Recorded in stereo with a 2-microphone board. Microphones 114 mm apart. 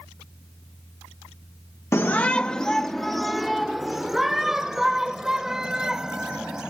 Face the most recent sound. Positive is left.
turn(degrees=-5)  # may be behind; listen again after turning